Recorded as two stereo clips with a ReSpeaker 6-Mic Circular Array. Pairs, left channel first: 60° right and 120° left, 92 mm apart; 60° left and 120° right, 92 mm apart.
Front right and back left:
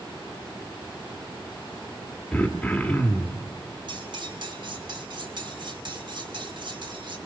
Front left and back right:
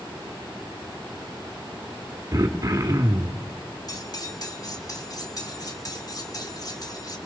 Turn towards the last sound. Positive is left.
turn(degrees=100)